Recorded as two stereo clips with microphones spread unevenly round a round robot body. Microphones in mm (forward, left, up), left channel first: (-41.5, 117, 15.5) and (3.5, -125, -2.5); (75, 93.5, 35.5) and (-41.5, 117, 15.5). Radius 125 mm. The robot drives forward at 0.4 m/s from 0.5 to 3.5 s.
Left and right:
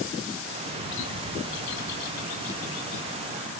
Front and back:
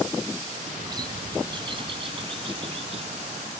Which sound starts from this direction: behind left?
A bird, at 0.8 s.